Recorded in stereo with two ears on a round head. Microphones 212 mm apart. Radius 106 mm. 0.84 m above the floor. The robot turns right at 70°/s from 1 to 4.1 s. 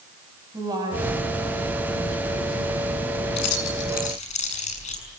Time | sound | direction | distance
0.5 | a woman speaking | 15° right | 6 m
3.4 | keys jangling | 85° left | 6 m